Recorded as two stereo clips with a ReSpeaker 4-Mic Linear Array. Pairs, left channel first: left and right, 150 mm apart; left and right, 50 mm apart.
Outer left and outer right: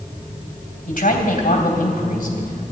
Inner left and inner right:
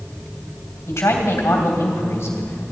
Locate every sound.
0.9 s a man speaking: 70° left (ahead or behind), 3 m